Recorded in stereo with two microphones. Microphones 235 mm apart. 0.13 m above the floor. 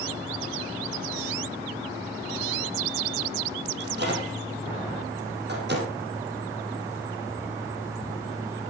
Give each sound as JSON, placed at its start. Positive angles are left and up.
{"t": 3.8, "sound": "a microwave", "side_deg": -45, "distance_m": 5.5}